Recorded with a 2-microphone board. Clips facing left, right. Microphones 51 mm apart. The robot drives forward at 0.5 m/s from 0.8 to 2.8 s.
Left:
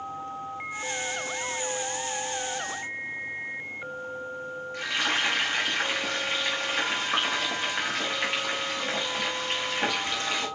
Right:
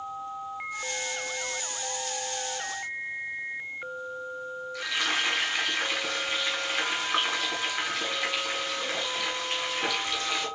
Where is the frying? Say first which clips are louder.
Left 1 dB; 45° left (ahead or behind), 5 m.